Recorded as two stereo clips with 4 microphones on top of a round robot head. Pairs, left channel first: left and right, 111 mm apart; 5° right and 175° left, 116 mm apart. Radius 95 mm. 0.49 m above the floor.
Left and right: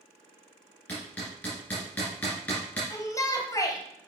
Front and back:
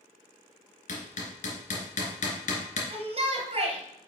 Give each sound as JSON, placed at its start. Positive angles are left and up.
{"t": 0.9, "sound": "hammering", "azimuth_deg": 10, "distance_m": 2.0}
{"t": 2.9, "sound": "a shout", "azimuth_deg": 150, "distance_m": 2.0}